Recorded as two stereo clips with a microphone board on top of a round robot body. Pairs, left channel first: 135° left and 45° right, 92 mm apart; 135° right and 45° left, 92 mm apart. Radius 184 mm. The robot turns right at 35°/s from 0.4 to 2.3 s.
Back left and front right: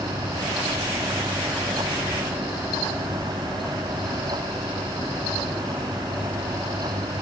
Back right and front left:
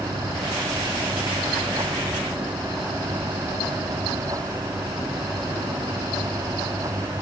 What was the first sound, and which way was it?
Only background noise.